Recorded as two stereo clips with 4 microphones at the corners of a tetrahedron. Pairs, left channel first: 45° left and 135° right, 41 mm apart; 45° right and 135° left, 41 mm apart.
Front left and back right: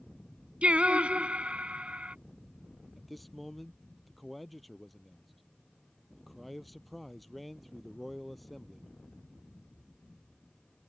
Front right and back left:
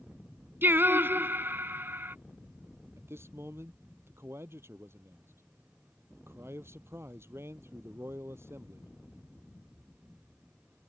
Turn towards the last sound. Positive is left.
turn(degrees=135)